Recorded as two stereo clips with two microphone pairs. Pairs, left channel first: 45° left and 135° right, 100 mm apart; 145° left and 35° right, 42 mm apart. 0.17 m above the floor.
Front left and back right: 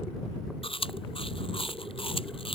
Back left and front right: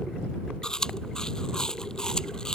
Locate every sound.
0.6 s chewing: 70° left